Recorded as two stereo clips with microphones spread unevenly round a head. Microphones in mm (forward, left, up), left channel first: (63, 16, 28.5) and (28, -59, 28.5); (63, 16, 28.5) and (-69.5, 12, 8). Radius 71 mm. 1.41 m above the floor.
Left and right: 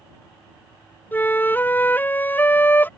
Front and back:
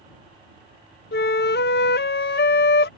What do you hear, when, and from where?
1.1 s a flute: 5° right